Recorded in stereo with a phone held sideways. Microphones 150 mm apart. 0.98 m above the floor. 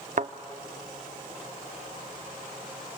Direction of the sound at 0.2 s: 55° right (ahead or behind).